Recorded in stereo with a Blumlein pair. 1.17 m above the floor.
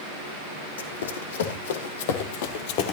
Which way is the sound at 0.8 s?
65° left.